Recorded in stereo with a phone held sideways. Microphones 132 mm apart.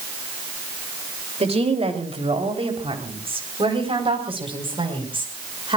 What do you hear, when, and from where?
1.4 s a woman speaking: 50° right (ahead or behind), 3 m; by 5.8 s 40° right (ahead or behind), 5.5 m